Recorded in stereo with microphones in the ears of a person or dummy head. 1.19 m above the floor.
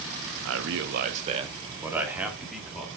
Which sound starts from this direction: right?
A man speaking, at 0.5 s.